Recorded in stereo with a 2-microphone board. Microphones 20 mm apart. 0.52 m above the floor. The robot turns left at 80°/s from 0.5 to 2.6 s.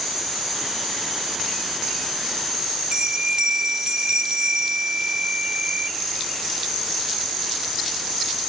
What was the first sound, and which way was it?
A bell, 55° right (ahead or behind).